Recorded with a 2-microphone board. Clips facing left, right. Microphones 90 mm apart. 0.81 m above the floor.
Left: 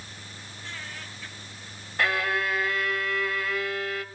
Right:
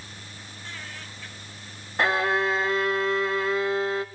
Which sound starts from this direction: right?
A violin, at 2.0 s.